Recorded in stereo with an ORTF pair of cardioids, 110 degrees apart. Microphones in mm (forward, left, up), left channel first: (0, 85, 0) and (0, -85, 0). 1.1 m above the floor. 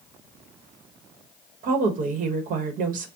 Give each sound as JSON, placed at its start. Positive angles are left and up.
{"t": 1.6, "sound": "a woman speaking", "azimuth_deg": -55, "distance_m": 0.9}